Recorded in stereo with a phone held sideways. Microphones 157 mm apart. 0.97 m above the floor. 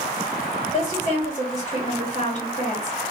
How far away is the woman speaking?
About 2 m.